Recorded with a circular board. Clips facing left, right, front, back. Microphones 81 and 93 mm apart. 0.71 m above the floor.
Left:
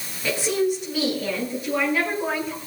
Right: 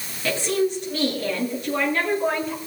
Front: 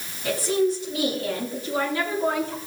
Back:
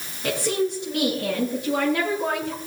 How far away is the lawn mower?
No lawn mower in this recording.